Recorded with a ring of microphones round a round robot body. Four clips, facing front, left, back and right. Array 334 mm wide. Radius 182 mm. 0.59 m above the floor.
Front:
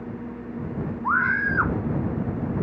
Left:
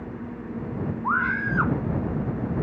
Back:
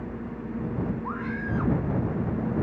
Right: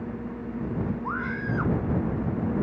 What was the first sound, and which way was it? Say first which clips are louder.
A scream: left 5 dB, front 8 dB; 30° left.